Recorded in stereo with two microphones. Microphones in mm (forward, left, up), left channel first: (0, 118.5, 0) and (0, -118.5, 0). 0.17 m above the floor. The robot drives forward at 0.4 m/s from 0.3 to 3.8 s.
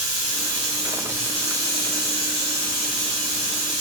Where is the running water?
60° left (ahead or behind), 1.7 m; by 3.8 s 30° left (ahead or behind), 2.5 m.